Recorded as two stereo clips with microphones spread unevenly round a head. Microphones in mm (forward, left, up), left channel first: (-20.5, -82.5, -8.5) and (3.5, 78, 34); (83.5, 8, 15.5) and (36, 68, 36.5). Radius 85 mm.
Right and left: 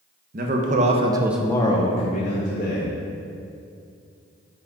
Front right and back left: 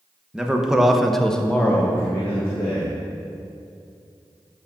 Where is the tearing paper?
I don't hear tearing paper.